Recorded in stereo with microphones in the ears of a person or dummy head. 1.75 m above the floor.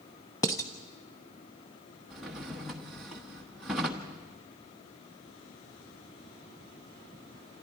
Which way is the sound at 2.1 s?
Centre (ahead or behind).